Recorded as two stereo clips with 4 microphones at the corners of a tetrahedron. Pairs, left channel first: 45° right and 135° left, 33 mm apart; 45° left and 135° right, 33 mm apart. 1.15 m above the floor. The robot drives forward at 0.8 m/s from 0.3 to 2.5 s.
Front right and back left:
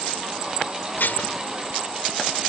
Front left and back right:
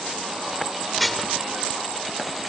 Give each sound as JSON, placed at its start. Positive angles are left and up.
{"t": 1.0, "sound": "dishes clattering", "azimuth_deg": -40}